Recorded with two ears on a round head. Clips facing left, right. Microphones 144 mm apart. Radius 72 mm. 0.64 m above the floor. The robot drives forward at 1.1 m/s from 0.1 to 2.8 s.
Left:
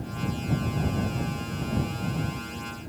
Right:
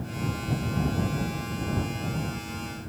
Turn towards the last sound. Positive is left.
No sound to turn to.